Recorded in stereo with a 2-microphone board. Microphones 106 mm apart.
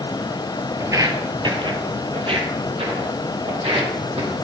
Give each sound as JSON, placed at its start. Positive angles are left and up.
{"t": 0.8, "sound": "footsteps", "side_deg": -30, "distance_m": 1.6}